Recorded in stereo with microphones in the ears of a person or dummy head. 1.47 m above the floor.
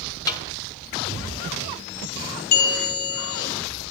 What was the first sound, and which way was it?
A snare drum, 25° left (ahead or behind).